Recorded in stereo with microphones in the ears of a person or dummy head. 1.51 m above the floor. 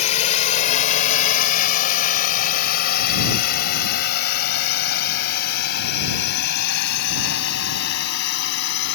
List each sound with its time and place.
0.0 s a drone: 40° left (ahead or behind); by 8.9 s 60° left (ahead or behind)